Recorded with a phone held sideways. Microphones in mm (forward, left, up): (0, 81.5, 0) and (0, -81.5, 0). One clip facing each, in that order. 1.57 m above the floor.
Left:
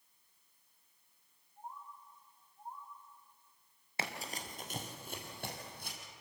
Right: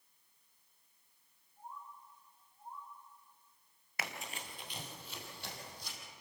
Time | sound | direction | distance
1.6 | a bird | 40° left (ahead or behind) | 6.5 m
4.0 | running footsteps | 30° left (ahead or behind) | 1.8 m